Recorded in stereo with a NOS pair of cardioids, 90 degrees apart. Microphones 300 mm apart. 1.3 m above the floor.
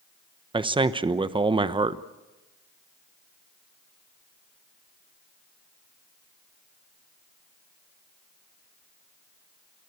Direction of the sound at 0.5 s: 15° right.